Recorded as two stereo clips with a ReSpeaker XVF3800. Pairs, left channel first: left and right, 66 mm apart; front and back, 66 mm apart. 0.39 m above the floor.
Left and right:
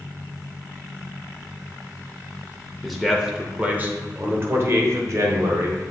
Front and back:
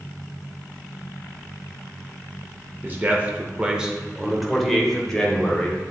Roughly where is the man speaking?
Behind.